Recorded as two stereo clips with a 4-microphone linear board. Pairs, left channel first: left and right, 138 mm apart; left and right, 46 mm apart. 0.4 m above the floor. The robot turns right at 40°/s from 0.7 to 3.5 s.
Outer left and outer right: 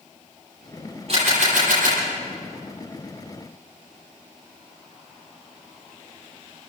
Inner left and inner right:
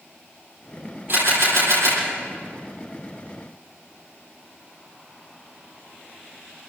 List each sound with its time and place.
1.1 s a camera shutter: 130° right, 9 m; by 2.0 s 95° right, 9 m